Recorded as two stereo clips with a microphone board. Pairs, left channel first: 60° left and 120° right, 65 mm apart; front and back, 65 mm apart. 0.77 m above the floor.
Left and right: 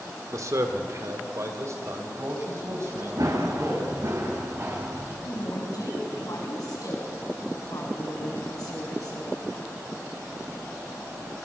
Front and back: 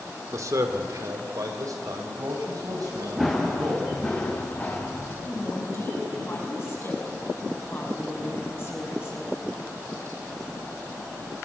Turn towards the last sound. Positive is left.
turn(degrees=50)